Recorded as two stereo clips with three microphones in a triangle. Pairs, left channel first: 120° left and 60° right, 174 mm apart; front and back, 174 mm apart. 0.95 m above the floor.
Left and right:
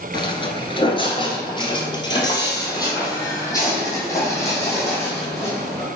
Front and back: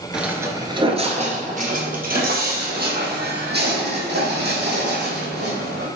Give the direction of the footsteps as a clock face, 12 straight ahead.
9 o'clock.